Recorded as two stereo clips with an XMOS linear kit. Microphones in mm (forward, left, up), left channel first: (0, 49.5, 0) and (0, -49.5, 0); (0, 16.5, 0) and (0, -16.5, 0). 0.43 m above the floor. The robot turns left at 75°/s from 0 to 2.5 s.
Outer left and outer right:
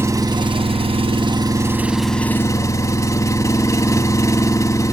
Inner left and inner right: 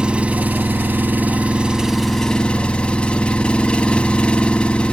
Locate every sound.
0.0 s an engine running: 25° right, 0.8 m; by 5.0 s 145° left, 0.8 m